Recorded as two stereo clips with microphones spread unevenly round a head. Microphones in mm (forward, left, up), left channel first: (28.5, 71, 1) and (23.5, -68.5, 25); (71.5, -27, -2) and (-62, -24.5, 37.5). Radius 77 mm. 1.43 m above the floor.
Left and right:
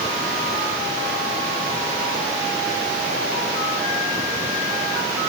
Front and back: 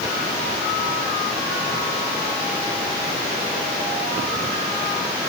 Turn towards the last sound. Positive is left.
No sound to turn to.